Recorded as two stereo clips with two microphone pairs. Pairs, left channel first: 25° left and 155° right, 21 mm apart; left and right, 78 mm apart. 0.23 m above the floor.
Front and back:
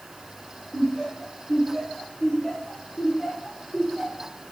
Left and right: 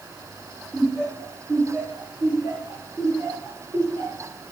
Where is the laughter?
Straight ahead, 3 m; by 4.3 s 40° right, 4.5 m.